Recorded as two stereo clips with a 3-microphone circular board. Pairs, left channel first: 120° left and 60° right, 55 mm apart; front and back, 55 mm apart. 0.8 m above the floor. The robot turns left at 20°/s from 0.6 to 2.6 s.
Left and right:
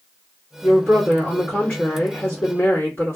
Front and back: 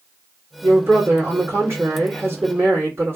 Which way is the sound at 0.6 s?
175° right.